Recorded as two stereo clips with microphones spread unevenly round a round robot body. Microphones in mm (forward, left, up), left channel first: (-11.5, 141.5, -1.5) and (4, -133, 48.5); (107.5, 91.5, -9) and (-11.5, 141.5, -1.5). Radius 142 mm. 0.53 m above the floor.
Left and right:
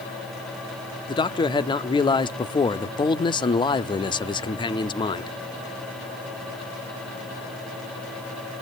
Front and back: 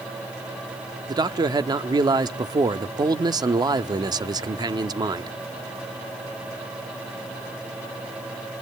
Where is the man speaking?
130° left, 0.8 m.